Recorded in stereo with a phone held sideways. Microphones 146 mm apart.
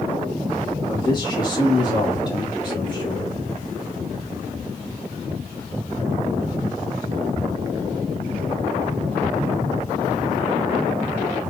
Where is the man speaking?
30° left (ahead or behind), 2 m.